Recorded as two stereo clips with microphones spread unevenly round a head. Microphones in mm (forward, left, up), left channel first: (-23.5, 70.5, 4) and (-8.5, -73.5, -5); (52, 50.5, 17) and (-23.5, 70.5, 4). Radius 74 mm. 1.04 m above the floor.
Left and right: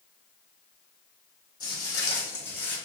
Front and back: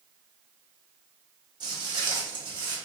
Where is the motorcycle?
I don't hear a motorcycle.